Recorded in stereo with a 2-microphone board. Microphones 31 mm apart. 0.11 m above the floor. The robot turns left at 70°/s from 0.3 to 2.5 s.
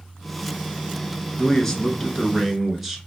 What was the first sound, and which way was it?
A man speaking, 15° left (ahead or behind).